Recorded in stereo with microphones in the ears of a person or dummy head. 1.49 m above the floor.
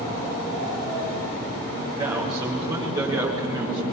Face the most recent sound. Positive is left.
turn(degrees=-20)  # may be behind; listen again after turning